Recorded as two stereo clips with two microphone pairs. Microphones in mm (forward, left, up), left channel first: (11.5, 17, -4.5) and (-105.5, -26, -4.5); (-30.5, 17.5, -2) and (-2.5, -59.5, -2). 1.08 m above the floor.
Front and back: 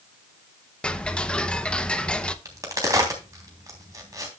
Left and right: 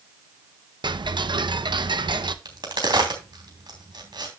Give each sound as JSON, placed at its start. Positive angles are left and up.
{"t": 0.8, "sound": "ticking", "azimuth_deg": -65, "distance_m": 0.7}
{"t": 2.5, "sound": "a crack", "azimuth_deg": -100, "distance_m": 3.0}